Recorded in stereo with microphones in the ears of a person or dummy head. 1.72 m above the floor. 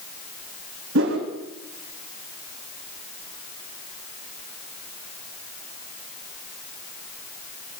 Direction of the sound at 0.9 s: 65° right (ahead or behind).